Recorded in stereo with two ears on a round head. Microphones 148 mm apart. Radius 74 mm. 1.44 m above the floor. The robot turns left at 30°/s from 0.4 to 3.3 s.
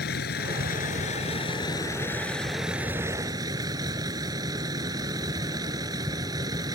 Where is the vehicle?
65° left; by 6.8 s 25° right.